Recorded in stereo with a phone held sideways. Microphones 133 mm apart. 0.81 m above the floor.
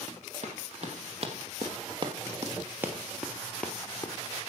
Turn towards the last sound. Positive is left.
turn(degrees=20)  # may be behind; listen again after turning